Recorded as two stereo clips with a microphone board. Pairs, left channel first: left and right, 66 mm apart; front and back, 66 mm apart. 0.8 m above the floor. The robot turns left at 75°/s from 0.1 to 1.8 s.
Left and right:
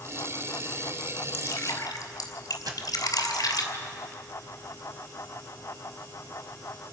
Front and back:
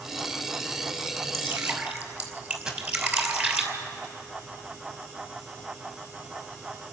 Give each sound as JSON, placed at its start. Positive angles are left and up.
{"t": 1.3, "sound": "dripping", "azimuth_deg": 150, "distance_m": 2.5}
{"t": 2.7, "sound": "a dropped coin", "azimuth_deg": -100, "distance_m": 2.5}